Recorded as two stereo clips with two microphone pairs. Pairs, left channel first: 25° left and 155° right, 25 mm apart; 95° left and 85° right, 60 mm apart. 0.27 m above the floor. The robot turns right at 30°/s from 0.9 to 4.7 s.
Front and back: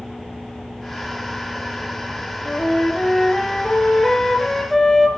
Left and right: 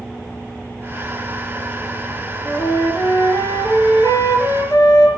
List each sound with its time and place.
2.5 s a flute: 40° left, 4 m; by 5.1 s 105° left, 4 m